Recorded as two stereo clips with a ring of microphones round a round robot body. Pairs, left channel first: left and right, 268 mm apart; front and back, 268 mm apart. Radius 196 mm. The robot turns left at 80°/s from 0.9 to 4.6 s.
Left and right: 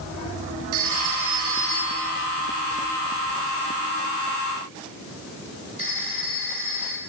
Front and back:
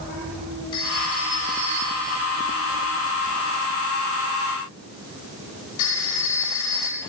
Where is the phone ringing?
80° right, 7.5 m; by 7.0 s 15° right, 7.5 m.